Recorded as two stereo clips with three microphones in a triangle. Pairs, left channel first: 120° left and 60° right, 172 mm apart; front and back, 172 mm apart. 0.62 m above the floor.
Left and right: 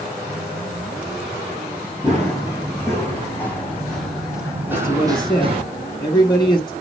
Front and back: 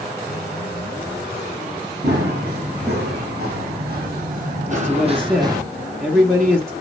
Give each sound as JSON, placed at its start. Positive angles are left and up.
{"t": 2.0, "sound": "running footsteps", "azimuth_deg": -175, "distance_m": 3.5}
{"t": 4.7, "sound": "a man speaking", "azimuth_deg": 85, "distance_m": 1.0}